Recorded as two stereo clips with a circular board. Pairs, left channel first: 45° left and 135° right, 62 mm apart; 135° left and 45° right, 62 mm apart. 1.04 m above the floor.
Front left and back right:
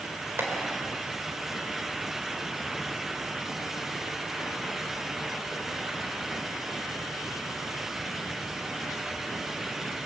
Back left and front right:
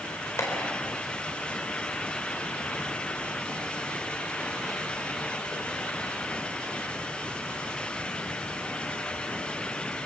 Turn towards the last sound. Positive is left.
turn(degrees=175)